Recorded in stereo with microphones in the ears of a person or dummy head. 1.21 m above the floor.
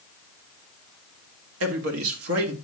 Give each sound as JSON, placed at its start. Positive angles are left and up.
{"t": 1.6, "sound": "a man speaking", "side_deg": -80, "distance_m": 2.5}